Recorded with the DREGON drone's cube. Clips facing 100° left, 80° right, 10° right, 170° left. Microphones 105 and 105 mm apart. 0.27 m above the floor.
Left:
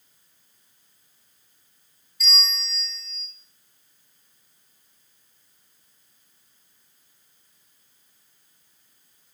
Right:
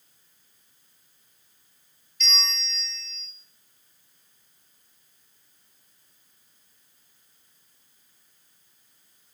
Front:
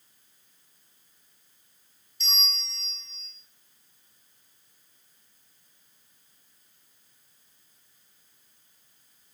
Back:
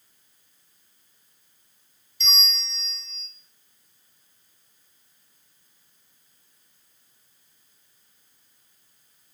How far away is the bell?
About 1.0 m.